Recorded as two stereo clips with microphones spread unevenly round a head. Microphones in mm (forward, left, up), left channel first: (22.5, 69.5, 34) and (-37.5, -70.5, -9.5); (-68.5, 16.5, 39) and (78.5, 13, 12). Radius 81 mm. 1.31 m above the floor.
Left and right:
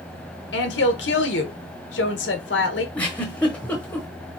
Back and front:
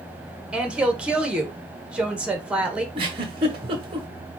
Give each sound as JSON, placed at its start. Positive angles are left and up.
{"t": 0.5, "sound": "a woman speaking", "azimuth_deg": 80, "distance_m": 1.3}
{"t": 3.0, "sound": "a giggle", "azimuth_deg": 40, "distance_m": 1.1}